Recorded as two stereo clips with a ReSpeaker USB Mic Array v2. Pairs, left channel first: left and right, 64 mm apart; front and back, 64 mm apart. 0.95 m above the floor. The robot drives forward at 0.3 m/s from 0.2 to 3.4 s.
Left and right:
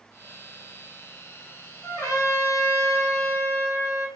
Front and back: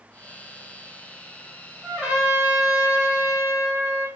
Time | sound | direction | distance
1.8 | a trumpet | 100° left | 2.0 m